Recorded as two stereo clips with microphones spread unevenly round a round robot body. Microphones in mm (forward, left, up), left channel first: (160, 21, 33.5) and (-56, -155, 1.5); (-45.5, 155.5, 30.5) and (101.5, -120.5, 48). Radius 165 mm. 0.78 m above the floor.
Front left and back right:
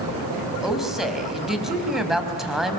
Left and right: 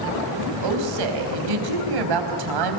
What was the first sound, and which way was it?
A woman speaking, 50° right.